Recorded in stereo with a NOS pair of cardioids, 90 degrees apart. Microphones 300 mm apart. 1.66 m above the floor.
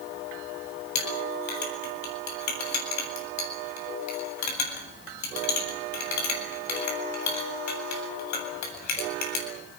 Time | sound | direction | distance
0.9 | a clink | 65° left | 8.5 m